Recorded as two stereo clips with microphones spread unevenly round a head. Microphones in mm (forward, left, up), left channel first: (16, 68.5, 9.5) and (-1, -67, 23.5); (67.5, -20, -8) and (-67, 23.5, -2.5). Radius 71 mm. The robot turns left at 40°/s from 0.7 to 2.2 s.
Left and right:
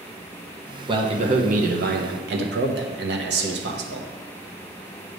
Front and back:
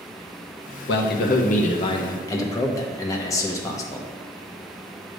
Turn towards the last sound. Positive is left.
turn(degrees=-90)